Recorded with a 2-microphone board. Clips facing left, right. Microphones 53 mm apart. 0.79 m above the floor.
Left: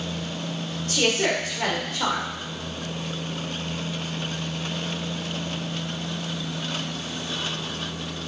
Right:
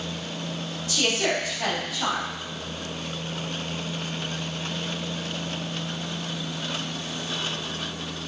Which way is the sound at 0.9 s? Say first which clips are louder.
Left 2 dB; 45° left (ahead or behind).